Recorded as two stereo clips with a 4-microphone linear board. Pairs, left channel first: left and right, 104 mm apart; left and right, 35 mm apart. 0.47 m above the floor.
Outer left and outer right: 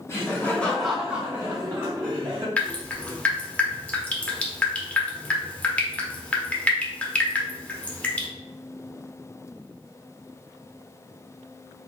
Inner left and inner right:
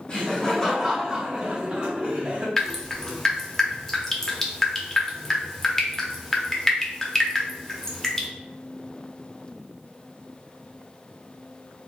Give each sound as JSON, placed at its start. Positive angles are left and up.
{"t": 0.1, "sound": "laughter", "side_deg": 30, "distance_m": 1.1}
{"t": 2.6, "sound": "dripping", "side_deg": 10, "distance_m": 0.7}